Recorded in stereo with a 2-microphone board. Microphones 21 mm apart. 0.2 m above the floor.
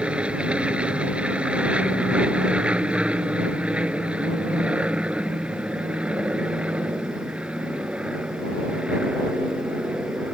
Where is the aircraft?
60° right (ahead or behind); by 10.3 s 65° right (ahead or behind).